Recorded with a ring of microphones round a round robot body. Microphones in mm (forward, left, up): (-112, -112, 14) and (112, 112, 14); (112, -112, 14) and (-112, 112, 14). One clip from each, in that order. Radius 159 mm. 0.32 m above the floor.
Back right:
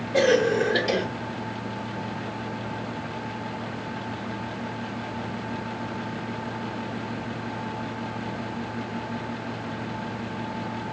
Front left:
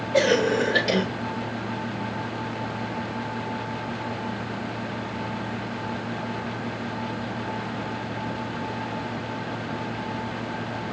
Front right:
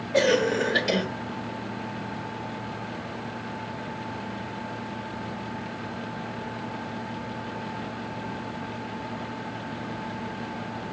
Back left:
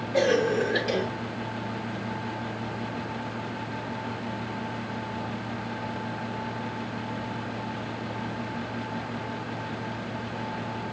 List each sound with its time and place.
0.1 s a cough: 20° right, 1.0 m